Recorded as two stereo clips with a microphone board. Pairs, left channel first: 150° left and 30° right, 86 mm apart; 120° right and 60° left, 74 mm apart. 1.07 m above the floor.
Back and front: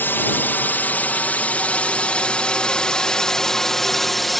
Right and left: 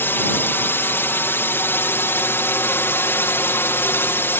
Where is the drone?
160° right; by 4.4 s 120° right.